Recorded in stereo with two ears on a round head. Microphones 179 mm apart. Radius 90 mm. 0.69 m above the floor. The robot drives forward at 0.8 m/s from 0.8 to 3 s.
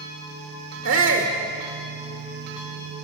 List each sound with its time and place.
0.8 s a shout: 75° right (ahead or behind), 1.8 m; by 1.3 s 70° right (ahead or behind), 1.9 m